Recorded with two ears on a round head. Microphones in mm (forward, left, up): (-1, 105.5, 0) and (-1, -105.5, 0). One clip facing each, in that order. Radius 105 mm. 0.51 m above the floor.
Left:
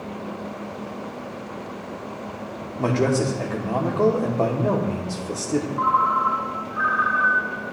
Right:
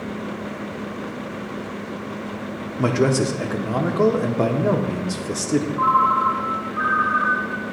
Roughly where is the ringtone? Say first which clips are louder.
Right 2 dB; left.